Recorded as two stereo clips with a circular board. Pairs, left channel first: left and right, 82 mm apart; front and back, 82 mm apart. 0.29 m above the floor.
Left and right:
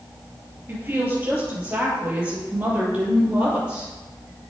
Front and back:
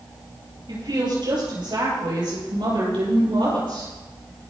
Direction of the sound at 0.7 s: 160° right.